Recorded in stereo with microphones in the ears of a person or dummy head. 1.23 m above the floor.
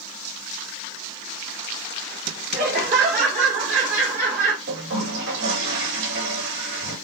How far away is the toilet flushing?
About 2 m.